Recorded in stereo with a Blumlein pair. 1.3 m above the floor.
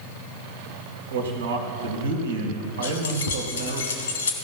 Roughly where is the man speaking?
Ahead right.